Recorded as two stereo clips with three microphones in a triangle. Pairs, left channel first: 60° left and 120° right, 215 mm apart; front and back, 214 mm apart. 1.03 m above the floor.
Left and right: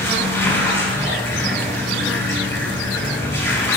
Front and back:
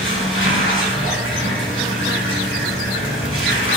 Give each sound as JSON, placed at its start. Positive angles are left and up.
{"t": 0.0, "sound": "running water", "azimuth_deg": -15, "distance_m": 6.5}